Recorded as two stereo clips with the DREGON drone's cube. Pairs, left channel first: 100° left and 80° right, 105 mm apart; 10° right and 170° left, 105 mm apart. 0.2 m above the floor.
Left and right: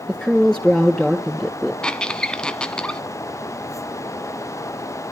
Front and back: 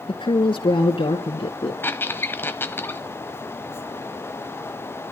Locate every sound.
0.1 s a woman speaking: 10° left, 3.5 m
1.8 s a squeak: 30° left, 1.0 m